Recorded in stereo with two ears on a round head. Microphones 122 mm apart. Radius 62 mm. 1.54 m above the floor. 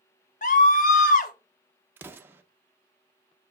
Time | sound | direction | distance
0.4 | a scream | 65° left (ahead or behind) | 1.0 m
2.0 | an explosion | 15° right (ahead or behind) | 0.7 m